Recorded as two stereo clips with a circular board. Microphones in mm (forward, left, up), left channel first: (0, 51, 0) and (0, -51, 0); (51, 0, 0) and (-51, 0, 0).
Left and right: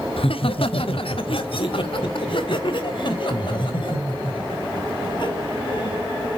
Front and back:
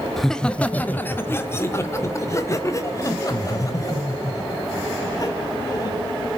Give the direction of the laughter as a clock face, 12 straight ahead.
9 o'clock.